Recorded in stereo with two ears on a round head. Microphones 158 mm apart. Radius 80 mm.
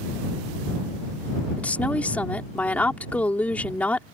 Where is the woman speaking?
10° left (ahead or behind).